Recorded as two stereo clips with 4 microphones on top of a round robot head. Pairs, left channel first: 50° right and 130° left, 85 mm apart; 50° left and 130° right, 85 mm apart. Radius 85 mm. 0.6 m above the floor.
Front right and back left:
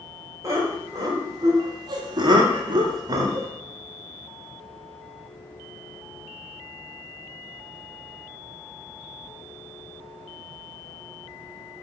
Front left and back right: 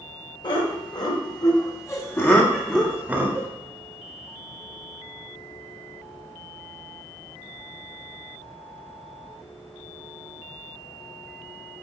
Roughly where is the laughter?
Left.